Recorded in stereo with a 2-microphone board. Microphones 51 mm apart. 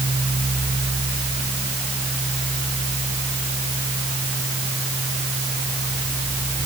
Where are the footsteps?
I don't hear footsteps.